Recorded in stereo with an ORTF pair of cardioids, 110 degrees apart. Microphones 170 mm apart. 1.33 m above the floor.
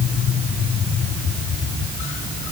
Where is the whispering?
No whispering in this recording.